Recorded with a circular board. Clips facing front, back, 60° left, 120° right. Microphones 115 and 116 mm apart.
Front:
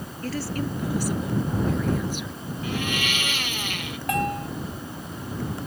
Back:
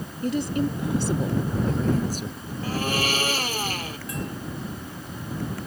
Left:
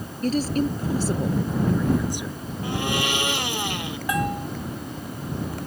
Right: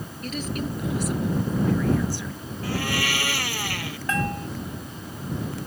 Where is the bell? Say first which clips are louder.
Front 10 dB, left 2 dB; 15° right.